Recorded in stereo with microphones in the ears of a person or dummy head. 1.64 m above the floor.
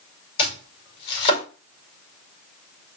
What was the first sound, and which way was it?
Chopping, 35° left (ahead or behind).